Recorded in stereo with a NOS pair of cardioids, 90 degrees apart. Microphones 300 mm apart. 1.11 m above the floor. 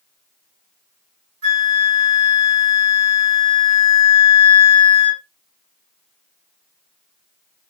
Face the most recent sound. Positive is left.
turn(degrees=-50)